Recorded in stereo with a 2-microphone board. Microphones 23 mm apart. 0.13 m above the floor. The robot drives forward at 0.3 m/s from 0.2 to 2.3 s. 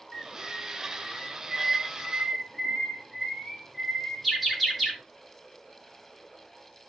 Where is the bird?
5° right (ahead or behind), 5.5 m.